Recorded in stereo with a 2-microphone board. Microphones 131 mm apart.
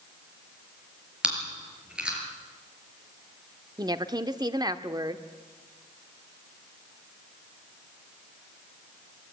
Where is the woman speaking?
30° right (ahead or behind), 0.9 m.